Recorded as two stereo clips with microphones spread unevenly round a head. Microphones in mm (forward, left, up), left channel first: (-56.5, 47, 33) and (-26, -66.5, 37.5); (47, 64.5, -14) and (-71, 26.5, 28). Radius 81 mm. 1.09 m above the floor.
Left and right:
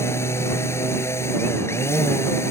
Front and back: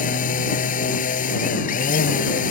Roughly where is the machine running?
Ahead left.